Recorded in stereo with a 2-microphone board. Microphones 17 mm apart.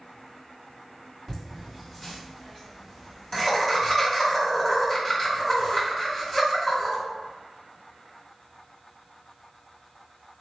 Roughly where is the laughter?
Left.